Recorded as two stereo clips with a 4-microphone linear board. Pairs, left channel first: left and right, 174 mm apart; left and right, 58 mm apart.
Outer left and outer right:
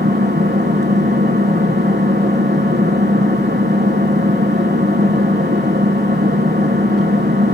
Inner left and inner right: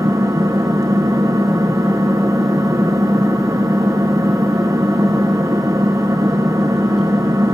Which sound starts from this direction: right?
An engine running, at 0.0 s.